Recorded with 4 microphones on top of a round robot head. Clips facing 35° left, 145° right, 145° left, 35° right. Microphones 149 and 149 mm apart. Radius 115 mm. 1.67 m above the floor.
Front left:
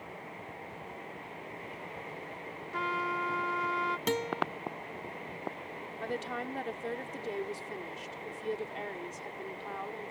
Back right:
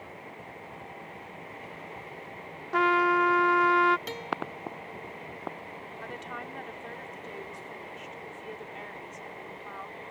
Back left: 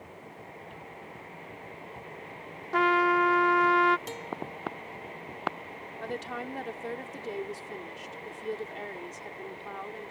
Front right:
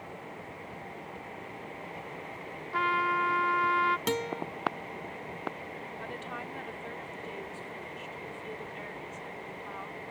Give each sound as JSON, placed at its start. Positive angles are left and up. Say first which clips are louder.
{"t": 2.7, "sound": "a trumpet", "louder": "back right 11 dB, back left 6 dB", "azimuth_deg": -175}
{"t": 4.1, "sound": "a guitar", "louder": "front left 3 dB, front right 6 dB", "azimuth_deg": -5}
{"t": 6.0, "sound": "a woman speaking", "louder": "front left 6 dB, back left 8 dB", "azimuth_deg": 90}